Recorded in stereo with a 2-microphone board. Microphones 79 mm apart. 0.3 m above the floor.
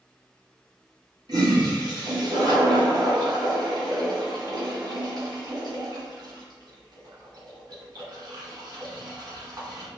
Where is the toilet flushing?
60° right (ahead or behind), 1.8 m.